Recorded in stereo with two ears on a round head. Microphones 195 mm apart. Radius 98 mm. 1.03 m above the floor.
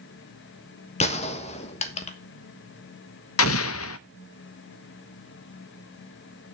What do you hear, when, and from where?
1.0 s a gunshot: 35° left (ahead or behind), 1.2 m
3.4 s an explosion: 75° left (ahead or behind), 0.7 m